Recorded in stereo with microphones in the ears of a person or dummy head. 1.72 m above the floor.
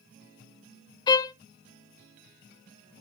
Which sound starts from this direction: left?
A violin, at 1.1 s.